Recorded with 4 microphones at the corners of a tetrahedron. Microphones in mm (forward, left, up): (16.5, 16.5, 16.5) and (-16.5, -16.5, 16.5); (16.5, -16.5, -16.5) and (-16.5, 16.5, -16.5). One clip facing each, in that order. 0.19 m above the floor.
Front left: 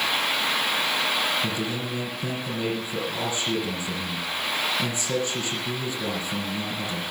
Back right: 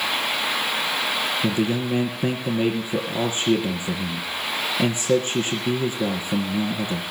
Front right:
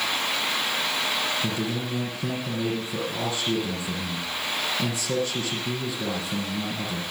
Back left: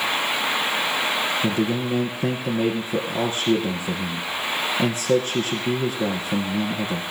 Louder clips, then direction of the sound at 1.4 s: Back right 6 dB, back left 6 dB; straight behind.